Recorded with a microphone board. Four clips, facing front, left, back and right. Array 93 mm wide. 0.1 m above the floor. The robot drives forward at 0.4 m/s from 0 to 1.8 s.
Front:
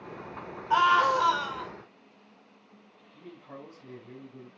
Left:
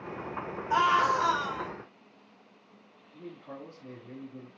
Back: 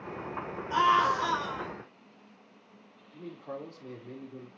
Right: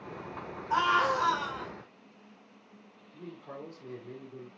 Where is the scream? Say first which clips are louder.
Left 2 dB, front 2 dB; 15° left, 3 m; by 1.7 s 20° left, 2.5 m.